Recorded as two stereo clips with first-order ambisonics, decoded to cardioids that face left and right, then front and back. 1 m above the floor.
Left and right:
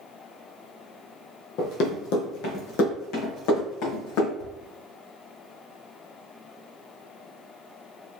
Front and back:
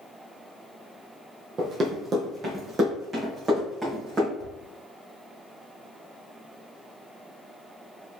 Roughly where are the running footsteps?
Behind left.